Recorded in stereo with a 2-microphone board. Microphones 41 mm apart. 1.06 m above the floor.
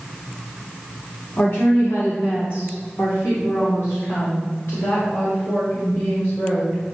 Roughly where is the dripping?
No dripping in this recording.